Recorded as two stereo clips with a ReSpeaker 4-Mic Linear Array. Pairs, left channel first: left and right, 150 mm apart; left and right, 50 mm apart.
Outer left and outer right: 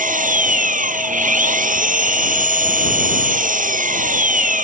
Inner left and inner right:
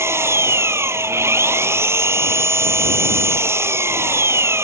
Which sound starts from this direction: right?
An engine running, at 0.0 s.